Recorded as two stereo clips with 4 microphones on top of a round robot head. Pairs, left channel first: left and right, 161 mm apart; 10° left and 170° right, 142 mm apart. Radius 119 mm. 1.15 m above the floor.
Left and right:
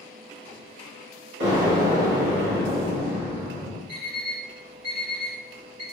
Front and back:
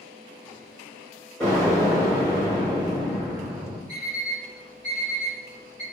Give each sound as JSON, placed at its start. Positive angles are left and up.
{"t": 1.4, "sound": "an explosion", "azimuth_deg": -80, "distance_m": 1.4}
{"t": 3.9, "sound": "an alarm clock", "azimuth_deg": -115, "distance_m": 1.1}